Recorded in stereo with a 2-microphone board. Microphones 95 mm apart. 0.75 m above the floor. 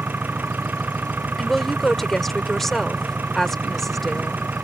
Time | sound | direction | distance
0.0 | an engine running | 20° right (ahead or behind) | ?
1.4 | a woman speaking | centre (ahead or behind) | ?